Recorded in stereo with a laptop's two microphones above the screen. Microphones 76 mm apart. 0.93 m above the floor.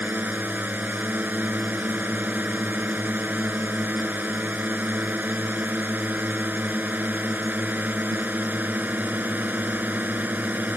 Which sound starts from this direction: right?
A drone, at 0.0 s.